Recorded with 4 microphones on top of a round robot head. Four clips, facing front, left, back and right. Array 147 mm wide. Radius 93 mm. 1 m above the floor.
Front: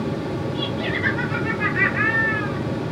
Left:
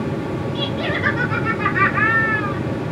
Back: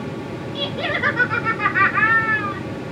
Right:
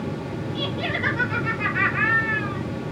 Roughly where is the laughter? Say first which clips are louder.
Left 2 dB, even; behind.